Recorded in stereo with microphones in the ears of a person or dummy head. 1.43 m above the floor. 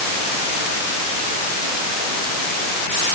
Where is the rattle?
I don't hear a rattle.